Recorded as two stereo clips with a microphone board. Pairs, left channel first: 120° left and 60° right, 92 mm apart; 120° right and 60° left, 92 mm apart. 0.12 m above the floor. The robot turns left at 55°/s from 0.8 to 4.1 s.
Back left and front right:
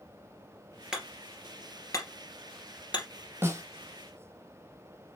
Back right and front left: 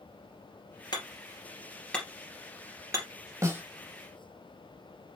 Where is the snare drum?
5° left, 1.0 m; by 3.6 s 5° right, 1.0 m.